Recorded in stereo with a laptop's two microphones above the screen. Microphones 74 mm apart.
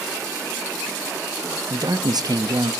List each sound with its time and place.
1.7 s a man speaking: 65° right (ahead or behind), 0.5 m